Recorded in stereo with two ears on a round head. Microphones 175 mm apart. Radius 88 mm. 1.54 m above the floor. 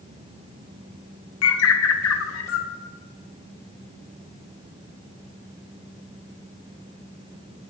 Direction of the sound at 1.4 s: 75° left (ahead or behind).